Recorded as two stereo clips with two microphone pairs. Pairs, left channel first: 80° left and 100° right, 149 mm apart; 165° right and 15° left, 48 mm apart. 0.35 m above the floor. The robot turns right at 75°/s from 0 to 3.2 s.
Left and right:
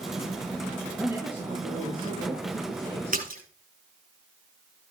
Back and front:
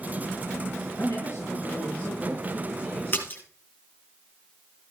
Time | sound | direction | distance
1.0 | a woman speaking | 175° left | 6 m
3.1 | a splash | 120° right | 5 m